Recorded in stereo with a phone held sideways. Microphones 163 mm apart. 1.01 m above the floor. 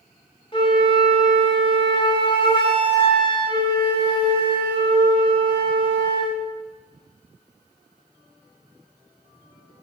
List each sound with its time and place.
0.5 s a flute: 30° left (ahead or behind), 2.5 m